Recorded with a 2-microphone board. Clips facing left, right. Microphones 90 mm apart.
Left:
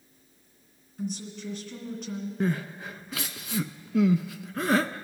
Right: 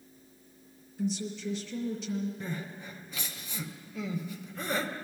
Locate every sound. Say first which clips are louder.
1.0 s a woman speaking: right 2 dB; 50° left (ahead or behind), 2.5 m
2.4 s crying: left 9 dB; 85° left, 0.5 m